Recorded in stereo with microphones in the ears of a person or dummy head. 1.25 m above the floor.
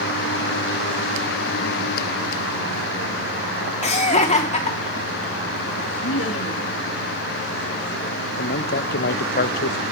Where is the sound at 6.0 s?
70° left (ahead or behind), 2.5 m.